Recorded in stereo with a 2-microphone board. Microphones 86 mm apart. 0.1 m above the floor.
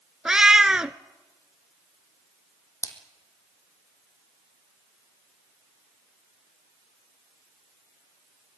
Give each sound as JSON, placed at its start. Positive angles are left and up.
{"t": 0.2, "sound": "a cat meowing", "side_deg": -10, "distance_m": 0.7}
{"t": 2.8, "sound": "a splash", "side_deg": 35, "distance_m": 2.0}